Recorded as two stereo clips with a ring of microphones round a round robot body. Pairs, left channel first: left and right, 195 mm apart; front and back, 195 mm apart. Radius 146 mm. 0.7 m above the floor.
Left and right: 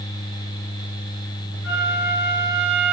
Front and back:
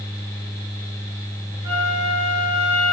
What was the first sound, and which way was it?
A flute, 105° left.